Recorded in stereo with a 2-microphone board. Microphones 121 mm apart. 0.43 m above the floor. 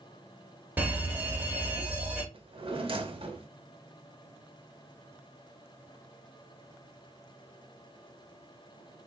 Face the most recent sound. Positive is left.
turn(degrees=-50)  # may be behind; listen again after turning